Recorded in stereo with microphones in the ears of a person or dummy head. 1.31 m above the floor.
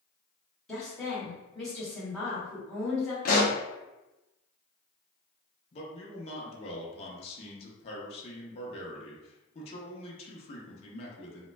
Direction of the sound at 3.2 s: 45° left (ahead or behind).